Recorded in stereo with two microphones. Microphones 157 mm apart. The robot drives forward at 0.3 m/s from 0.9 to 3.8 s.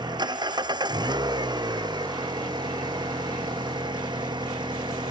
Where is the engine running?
25° right (ahead or behind); by 5.1 s 30° right (ahead or behind).